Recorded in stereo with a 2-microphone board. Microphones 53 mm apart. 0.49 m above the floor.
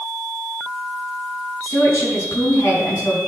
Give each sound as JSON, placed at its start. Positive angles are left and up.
{"t": 1.6, "sound": "a woman speaking", "side_deg": 80, "distance_m": 4.5}